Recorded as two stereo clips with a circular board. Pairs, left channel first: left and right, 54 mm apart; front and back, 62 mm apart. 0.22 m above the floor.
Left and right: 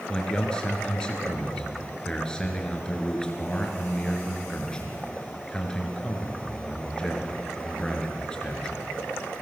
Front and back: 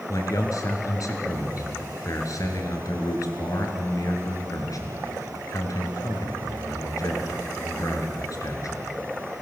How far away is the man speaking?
About 3.5 m.